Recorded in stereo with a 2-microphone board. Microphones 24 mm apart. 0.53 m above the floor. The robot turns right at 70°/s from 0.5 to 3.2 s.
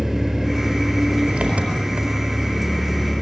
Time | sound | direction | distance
0.0 | an engine running | 170° right | 4.5 m